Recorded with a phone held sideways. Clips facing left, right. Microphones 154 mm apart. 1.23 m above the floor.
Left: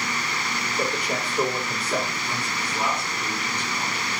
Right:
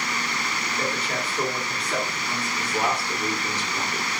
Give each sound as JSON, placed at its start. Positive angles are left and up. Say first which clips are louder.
{"t": 0.8, "sound": "a man speaking", "louder": "left 2 dB", "side_deg": 15, "distance_m": 3.0}
{"t": 2.6, "sound": "a man speaking", "louder": "right 3 dB", "side_deg": -80, "distance_m": 4.0}